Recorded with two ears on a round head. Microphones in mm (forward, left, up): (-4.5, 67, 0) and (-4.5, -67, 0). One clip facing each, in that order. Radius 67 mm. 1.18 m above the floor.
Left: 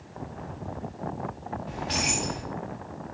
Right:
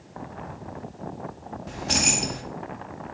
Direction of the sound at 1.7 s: 55° right (ahead or behind).